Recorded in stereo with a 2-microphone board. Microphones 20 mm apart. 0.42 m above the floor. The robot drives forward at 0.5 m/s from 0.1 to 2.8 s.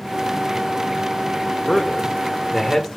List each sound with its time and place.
1.7 s a man speaking: 15° left (ahead or behind), 0.8 m